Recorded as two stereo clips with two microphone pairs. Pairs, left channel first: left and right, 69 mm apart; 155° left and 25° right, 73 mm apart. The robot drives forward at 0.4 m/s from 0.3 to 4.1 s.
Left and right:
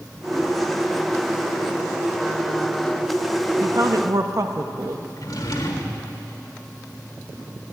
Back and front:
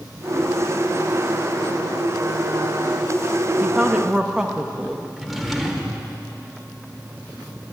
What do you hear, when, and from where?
3.6 s a woman speaking: 90° right, 0.9 m; by 5.1 s 105° right, 0.9 m
5.2 s a drawer: 65° left, 1.3 m